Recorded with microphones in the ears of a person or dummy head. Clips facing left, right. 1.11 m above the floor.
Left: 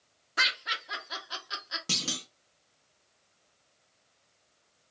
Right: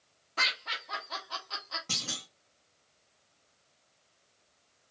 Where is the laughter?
10° left (ahead or behind), 0.5 m.